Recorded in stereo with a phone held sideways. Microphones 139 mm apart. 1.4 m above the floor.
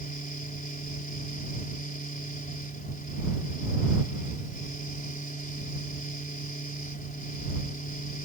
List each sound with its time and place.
0.0 s a fan: 80° left